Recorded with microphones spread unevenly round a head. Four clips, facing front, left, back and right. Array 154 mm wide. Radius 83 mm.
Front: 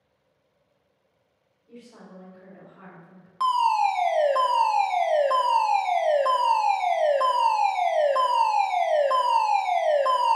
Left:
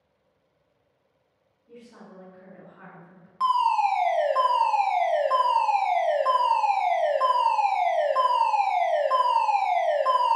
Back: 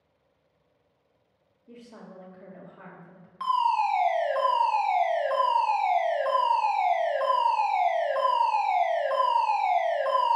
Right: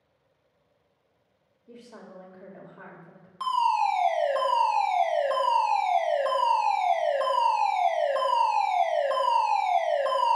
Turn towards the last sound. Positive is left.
turn(degrees=-5)